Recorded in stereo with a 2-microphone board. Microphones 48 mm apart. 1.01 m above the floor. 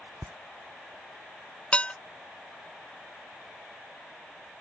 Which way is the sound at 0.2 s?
65° right (ahead or behind).